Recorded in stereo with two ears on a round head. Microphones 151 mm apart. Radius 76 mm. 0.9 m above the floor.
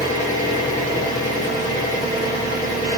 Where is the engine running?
45° left (ahead or behind), 1.1 m.